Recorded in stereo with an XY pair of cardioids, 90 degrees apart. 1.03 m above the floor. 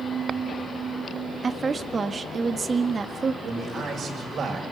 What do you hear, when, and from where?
1.4 s a woman speaking: 40° right, 1.5 m
3.4 s a man speaking: 60° right, 6 m